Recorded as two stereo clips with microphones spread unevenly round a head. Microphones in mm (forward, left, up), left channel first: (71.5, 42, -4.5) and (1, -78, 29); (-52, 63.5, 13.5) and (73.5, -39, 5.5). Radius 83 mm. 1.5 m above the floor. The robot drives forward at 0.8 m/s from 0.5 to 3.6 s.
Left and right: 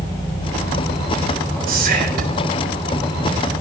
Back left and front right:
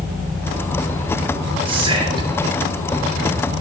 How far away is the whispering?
About 4.5 m.